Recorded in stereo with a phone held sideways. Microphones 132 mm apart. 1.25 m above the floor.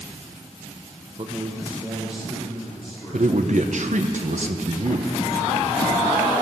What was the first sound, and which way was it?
A man speaking, 40° right (ahead or behind).